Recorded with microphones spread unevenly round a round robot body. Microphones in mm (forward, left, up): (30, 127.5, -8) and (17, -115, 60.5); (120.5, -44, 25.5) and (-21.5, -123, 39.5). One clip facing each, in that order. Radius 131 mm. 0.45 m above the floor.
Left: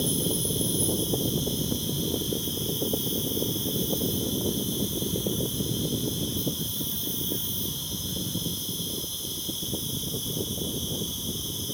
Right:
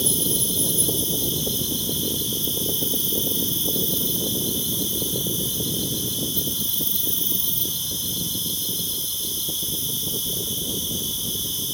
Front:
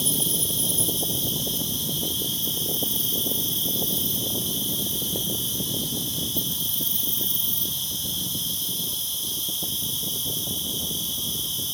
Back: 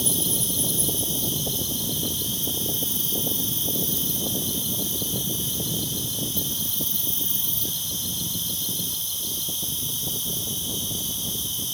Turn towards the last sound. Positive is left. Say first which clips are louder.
# even, back 1 dB
turn(degrees=-65)